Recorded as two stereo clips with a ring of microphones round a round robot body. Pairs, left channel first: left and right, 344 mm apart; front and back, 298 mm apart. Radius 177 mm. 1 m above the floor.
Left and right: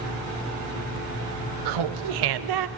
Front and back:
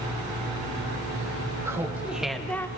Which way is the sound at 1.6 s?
100° right.